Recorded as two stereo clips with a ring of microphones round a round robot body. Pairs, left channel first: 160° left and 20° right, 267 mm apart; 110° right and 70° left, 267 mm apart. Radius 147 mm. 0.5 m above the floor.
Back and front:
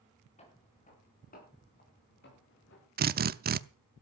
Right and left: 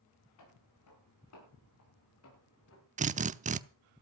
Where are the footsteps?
135° right, 7.5 m; by 2.9 s 155° right, 7.5 m.